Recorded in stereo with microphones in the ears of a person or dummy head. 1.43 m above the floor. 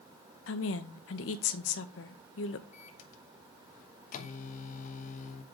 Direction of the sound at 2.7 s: 45° left (ahead or behind).